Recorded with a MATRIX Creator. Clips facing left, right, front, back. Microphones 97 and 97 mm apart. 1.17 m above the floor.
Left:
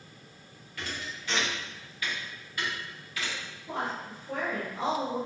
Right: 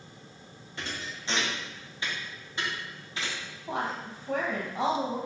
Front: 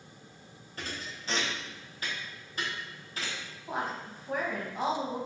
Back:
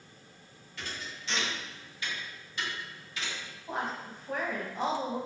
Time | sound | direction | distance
0.8 | a thud | 35° right | 0.6 m
3.7 | a woman speaking | 85° right | 0.8 m